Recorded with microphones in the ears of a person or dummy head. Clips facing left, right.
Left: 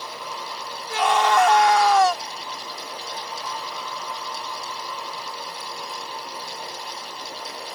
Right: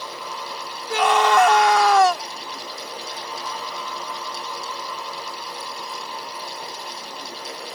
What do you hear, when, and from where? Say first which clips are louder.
0.9 s a scream: right 2 dB; 65° right (ahead or behind)